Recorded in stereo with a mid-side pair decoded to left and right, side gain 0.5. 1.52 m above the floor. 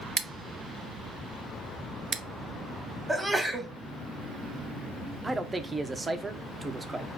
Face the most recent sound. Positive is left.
turn(degrees=-20)